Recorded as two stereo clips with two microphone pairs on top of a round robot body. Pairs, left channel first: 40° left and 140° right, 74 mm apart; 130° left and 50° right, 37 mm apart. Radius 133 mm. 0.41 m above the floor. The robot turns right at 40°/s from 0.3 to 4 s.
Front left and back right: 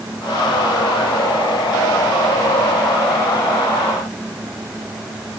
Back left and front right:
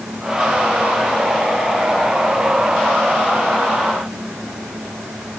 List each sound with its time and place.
Only background noise.